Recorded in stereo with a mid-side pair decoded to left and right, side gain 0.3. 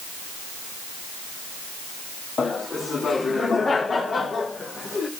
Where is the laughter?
65° left, 2.5 m.